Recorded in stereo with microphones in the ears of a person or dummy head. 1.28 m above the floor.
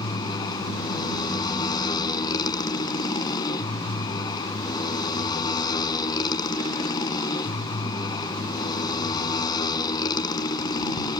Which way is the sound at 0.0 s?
25° left (ahead or behind).